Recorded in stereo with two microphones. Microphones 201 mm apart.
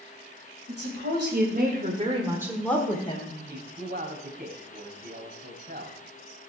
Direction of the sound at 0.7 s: 60° right (ahead or behind).